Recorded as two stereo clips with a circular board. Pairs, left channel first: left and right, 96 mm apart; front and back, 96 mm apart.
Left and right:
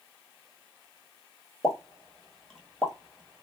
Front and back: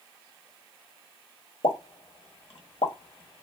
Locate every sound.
1.6 s a pop: 5° left, 1.2 m